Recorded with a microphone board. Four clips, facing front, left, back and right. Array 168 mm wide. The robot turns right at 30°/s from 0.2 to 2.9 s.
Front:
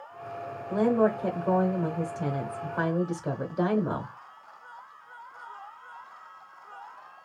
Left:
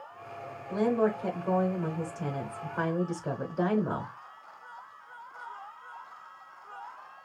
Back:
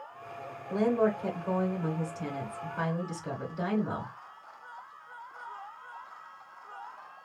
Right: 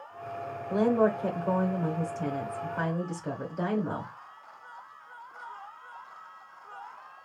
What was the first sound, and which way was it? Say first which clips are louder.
A woman speaking: right 2 dB, front 3 dB; 55° right.